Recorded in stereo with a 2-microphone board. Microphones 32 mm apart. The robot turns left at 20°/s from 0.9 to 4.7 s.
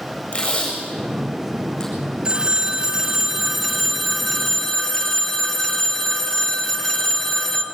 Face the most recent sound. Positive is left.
turn(degrees=165)